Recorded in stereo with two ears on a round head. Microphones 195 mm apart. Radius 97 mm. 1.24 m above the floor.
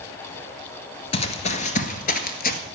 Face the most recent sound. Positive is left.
turn(degrees=40)  # may be behind; listen again after turning